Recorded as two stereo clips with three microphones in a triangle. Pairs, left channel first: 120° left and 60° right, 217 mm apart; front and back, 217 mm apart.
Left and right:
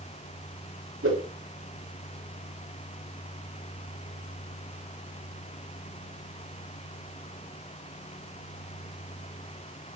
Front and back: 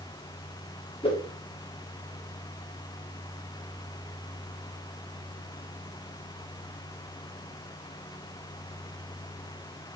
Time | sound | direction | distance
1.0 | a whoosh | 65° right | 5.5 m